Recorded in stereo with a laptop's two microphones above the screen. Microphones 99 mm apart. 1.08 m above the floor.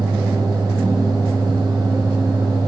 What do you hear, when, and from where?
0.0 s a fan: 45° right (ahead or behind), 1.2 m